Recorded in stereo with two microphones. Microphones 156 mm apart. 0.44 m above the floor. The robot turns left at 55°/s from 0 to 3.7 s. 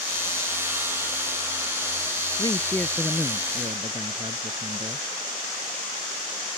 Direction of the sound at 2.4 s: 30° left.